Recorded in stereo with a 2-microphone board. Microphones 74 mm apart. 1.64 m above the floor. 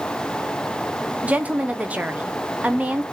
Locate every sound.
1.2 s a woman speaking: 20° right (ahead or behind), 0.8 m